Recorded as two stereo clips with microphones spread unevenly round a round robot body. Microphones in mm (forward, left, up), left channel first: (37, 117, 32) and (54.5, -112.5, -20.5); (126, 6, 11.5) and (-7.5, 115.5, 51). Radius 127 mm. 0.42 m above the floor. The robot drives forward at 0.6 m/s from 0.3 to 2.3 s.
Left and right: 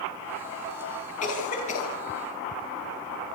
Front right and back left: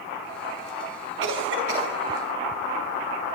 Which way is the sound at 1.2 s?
160° left.